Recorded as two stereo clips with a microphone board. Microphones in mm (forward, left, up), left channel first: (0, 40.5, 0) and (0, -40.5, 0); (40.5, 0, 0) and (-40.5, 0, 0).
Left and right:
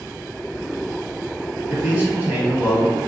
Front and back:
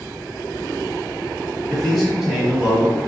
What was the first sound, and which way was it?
A man speaking, 65° right.